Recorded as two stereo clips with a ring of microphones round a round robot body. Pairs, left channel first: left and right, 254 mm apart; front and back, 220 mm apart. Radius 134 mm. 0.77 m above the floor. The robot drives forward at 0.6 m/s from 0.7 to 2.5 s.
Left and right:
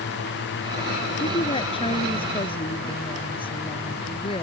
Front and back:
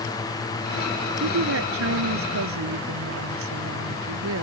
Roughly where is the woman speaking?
Behind.